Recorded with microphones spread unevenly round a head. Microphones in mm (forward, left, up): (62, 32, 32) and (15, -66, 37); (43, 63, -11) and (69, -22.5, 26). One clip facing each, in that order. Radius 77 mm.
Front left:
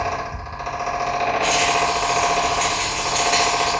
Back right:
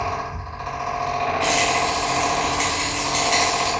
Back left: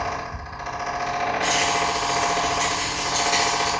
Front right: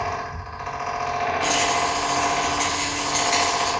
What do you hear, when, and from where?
0.0 s a fan: 100° left, 1.6 m
1.4 s a rattle: 130° right, 2.5 m